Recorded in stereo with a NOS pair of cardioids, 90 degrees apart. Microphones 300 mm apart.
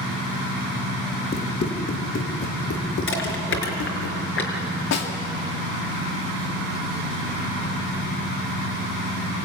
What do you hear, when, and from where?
1.3 s running footsteps: 35° left, 5 m; by 4.1 s 75° left, 5 m
3.1 s crushing: 45° left, 5.5 m
4.9 s a snare drum: 60° left, 2.5 m